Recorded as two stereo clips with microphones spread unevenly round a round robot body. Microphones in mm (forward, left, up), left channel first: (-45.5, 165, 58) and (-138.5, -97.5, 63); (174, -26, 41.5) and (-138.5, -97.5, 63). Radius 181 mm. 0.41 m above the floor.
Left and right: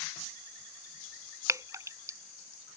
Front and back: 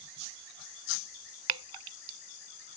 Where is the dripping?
170° left.